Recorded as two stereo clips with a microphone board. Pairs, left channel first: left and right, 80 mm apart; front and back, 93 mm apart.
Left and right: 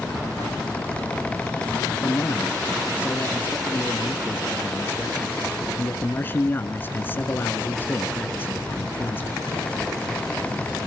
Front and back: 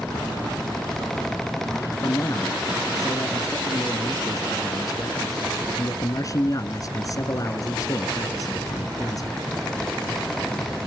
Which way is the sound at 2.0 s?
35° left.